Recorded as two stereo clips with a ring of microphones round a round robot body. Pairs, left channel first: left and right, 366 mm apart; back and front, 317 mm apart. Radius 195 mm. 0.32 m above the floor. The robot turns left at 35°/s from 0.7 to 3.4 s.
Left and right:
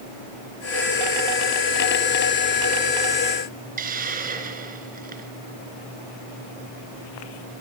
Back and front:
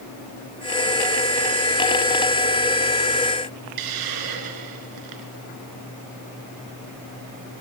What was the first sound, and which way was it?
A hiss, 20° right.